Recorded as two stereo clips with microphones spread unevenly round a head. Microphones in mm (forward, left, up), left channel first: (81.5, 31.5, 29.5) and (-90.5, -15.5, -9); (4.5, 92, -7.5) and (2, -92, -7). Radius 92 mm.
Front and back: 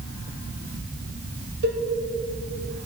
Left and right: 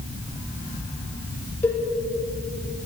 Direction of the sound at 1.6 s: 170° left.